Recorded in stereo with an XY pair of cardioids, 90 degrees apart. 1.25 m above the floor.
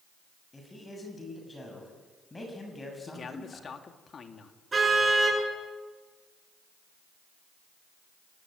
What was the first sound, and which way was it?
A man speaking, 25° left.